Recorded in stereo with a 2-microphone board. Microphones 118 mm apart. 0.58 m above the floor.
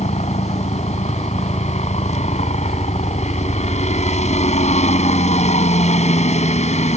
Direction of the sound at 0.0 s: 70° left (ahead or behind).